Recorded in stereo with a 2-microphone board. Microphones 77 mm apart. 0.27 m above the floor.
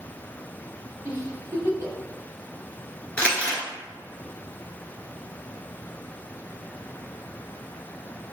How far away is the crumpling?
About 1.2 m.